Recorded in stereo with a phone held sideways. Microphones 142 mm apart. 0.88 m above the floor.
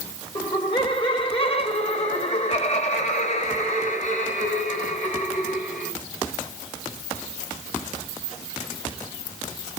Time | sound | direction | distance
0.3 | laughter | 35° left (ahead or behind) | 3.5 m